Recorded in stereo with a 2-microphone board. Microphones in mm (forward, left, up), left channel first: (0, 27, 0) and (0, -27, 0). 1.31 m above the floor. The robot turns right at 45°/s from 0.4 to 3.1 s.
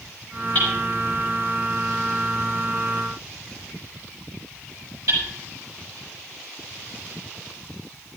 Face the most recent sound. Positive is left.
turn(degrees=-80)